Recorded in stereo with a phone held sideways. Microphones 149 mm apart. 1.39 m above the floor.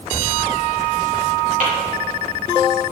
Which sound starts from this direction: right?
Tapping, at 1.6 s.